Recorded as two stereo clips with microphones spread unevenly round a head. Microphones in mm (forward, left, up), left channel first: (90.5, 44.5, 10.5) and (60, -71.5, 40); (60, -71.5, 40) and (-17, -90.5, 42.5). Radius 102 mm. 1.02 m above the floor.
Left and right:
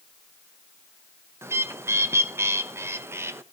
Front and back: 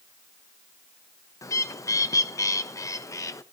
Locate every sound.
1.4 s a bird: 30° right, 1.0 m